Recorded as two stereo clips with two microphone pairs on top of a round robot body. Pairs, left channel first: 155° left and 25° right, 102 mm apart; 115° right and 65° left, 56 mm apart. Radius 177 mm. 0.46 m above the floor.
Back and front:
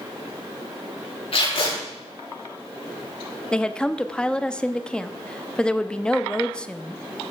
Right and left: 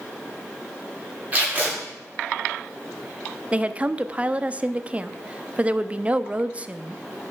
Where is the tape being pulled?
125° left, 6 m.